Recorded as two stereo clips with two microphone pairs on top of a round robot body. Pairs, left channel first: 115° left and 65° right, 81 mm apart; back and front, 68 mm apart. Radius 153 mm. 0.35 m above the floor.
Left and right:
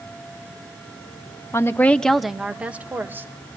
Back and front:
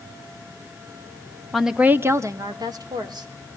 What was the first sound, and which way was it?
A woman speaking, 110° left.